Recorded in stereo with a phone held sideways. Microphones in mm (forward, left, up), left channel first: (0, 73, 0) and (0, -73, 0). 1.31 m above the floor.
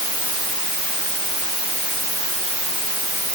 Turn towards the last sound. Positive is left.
No sound to turn to.